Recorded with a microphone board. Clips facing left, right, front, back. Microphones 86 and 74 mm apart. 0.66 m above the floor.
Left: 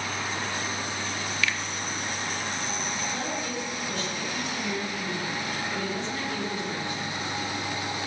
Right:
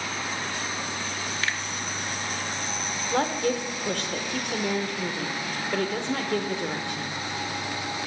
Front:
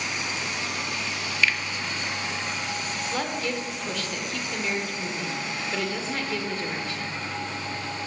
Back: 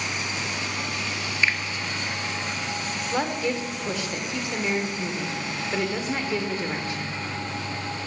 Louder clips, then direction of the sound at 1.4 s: Left 1 dB, even; 125° right.